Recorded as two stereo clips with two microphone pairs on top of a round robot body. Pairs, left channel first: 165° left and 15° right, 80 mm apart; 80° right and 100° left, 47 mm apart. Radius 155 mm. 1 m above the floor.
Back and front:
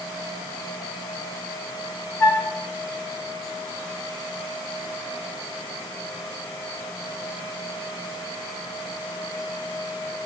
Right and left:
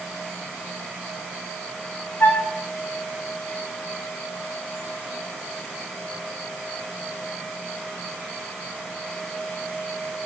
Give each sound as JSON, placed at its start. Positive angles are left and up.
{"t": 2.2, "sound": "a flute", "azimuth_deg": -135, "distance_m": 6.0}